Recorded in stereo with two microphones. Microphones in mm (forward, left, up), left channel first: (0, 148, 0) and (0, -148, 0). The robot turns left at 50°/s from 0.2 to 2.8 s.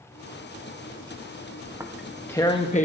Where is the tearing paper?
15° right (ahead or behind), 1.0 m; by 2.9 s 25° left (ahead or behind), 1.0 m.